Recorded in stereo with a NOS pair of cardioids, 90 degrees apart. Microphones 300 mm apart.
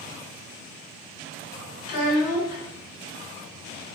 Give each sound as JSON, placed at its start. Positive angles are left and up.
{"t": 1.9, "sound": "a child speaking", "azimuth_deg": 55, "distance_m": 2.5}